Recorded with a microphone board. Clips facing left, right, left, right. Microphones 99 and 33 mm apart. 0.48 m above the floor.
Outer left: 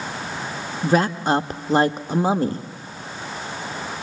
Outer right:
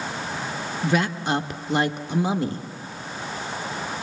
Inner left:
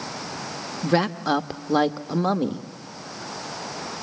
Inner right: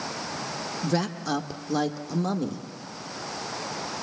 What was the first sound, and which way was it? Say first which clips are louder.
A woman speaking: outer left 5 dB, inner left 6 dB; 40° left (ahead or behind).